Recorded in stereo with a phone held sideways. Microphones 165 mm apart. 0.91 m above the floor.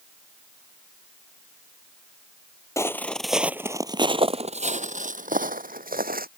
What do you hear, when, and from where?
2.8 s footsteps: 20° left (ahead or behind); by 6.3 s 65° right (ahead or behind)